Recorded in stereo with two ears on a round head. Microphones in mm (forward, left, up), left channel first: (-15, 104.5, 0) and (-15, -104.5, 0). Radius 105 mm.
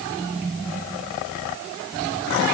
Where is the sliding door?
I don't hear a sliding door.